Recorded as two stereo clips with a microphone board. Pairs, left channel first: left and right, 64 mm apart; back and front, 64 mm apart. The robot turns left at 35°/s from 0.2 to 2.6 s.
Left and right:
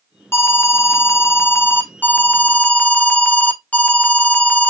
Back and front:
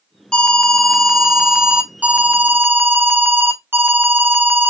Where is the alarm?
110° left, 0.6 m; by 4.7 s 30° left, 0.6 m.